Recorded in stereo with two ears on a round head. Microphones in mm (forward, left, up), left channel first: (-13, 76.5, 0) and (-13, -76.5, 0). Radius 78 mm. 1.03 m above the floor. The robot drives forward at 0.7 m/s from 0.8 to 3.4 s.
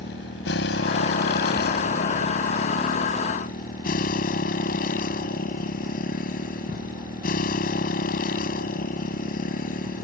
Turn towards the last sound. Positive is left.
turn(degrees=60)  # may be behind; listen again after turning